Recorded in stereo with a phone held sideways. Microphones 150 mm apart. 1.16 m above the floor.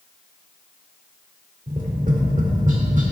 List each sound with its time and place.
1.7 s tapping: 60° right (ahead or behind), 1.9 m